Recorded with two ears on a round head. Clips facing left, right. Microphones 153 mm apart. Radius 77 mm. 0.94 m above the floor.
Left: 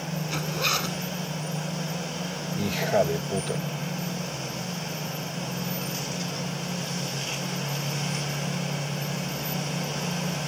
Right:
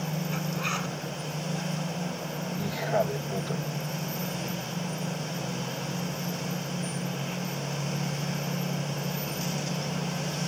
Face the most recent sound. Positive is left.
turn(degrees=30)  # may be behind; listen again after turning